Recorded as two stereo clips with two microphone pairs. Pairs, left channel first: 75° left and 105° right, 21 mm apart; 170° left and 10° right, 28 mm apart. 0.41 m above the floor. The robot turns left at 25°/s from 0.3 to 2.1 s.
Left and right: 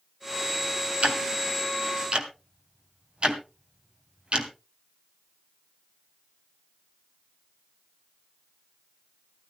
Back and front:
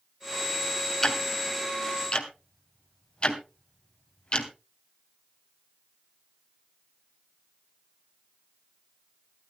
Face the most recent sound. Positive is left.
turn(degrees=-135)